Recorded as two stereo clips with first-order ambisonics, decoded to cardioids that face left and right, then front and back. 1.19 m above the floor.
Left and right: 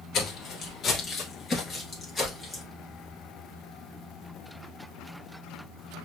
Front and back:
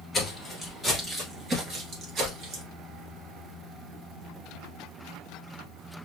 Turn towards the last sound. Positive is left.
turn(degrees=170)